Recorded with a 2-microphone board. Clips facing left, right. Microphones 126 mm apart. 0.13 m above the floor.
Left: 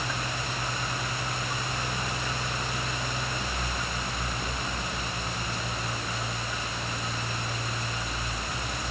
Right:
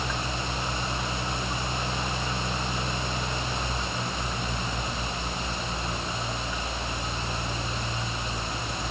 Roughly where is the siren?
No siren in this recording.